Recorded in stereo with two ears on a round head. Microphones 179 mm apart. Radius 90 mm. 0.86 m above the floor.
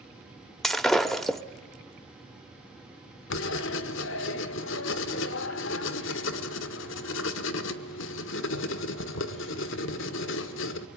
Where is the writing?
65° left (ahead or behind), 1.5 m.